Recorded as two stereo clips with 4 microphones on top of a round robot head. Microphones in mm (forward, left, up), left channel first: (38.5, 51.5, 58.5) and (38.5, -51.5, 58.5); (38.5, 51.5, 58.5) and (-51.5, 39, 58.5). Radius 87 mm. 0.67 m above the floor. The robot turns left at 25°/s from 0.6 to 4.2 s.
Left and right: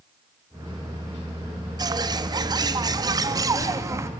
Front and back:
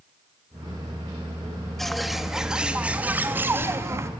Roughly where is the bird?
Right.